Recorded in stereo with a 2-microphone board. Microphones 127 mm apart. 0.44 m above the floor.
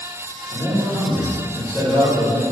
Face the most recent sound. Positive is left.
turn(degrees=15)  # may be behind; listen again after turning